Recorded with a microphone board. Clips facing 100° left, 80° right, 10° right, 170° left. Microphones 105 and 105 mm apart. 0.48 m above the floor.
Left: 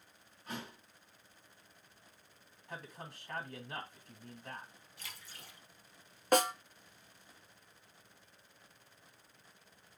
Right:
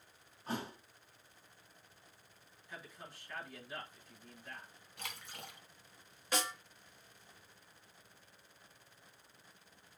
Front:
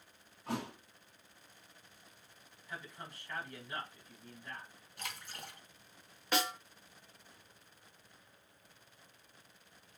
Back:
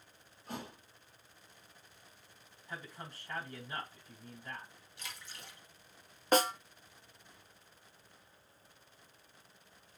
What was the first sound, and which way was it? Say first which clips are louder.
A thud: right 4 dB, front 5 dB; 20° right.